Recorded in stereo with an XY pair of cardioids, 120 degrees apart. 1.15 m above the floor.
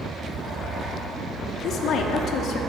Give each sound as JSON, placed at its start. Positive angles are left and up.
{"t": 1.6, "sound": "a woman speaking", "azimuth_deg": 60, "distance_m": 2.0}